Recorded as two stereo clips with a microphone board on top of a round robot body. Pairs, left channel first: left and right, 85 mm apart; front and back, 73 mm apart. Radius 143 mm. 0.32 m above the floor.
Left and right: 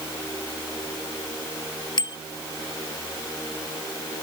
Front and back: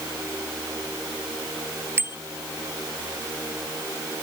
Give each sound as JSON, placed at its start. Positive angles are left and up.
{"t": 2.0, "sound": "a bicycle bell", "azimuth_deg": 125}